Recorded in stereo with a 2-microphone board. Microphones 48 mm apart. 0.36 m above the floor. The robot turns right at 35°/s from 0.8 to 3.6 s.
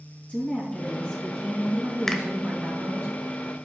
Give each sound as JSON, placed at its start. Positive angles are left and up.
{"t": 0.3, "sound": "a woman speaking", "azimuth_deg": 160, "distance_m": 3.5}
{"t": 2.1, "sound": "a finger snap", "side_deg": 10, "distance_m": 1.0}